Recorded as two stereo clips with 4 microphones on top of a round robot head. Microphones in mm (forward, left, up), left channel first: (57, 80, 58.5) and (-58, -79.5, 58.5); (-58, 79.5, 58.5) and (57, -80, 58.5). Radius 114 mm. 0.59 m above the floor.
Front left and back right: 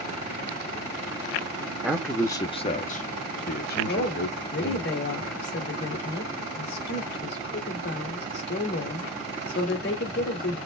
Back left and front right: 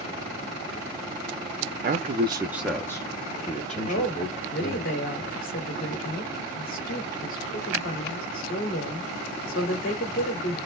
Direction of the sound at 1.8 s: 45° right.